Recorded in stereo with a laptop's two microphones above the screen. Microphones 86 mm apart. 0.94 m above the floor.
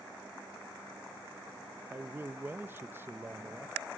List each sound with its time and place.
1.9 s a man speaking: 25° right (ahead or behind), 0.7 m